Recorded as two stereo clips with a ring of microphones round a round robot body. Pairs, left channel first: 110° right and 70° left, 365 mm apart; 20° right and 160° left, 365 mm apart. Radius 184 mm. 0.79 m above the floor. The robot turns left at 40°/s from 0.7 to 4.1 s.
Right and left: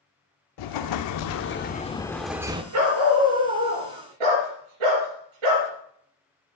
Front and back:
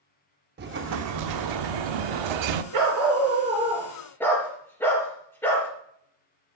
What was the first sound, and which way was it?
An explosion, 140° right.